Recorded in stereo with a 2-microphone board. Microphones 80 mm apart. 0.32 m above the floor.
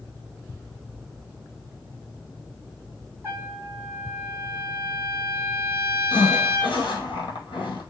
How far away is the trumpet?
About 1.0 m.